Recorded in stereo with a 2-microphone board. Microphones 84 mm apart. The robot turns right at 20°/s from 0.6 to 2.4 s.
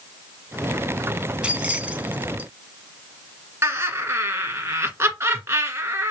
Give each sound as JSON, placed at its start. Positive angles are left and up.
{"t": 1.4, "sound": "keys jangling", "side_deg": -15, "distance_m": 0.7}
{"t": 3.6, "sound": "laughter", "side_deg": -30, "distance_m": 1.5}